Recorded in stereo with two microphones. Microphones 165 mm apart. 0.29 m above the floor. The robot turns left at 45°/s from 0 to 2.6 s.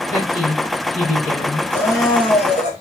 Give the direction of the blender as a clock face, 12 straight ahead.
6 o'clock.